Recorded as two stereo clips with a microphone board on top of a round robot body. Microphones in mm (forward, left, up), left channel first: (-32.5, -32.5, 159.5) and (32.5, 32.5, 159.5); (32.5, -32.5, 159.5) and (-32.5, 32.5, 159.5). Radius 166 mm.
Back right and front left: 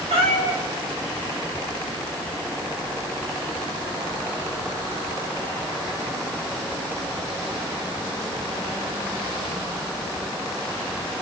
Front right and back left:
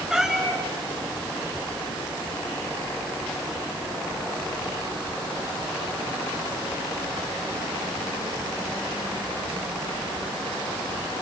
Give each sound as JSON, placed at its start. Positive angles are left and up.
{"t": 0.1, "sound": "a cat meowing", "azimuth_deg": 50, "distance_m": 4.0}